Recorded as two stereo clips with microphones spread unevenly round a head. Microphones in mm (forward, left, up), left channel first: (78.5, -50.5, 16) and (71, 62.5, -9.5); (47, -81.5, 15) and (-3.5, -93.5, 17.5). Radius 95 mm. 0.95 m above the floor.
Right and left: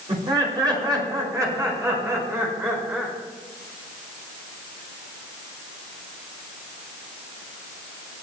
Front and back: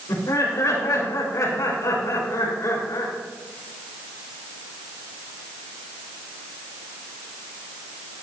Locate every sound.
0.1 s laughter: 45° left, 5 m; by 3.1 s 20° left, 5 m